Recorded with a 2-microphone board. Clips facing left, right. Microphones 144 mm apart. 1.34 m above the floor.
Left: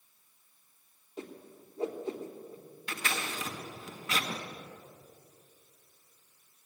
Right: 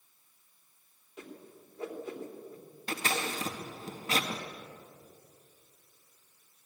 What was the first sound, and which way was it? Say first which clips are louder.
A whoosh: left 3 dB; 30° left (ahead or behind).